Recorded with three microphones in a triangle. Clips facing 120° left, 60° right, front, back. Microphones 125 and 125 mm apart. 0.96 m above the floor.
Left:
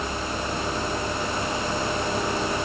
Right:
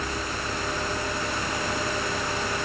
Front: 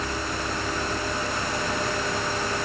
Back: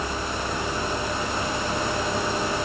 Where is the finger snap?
I don't hear a finger snap.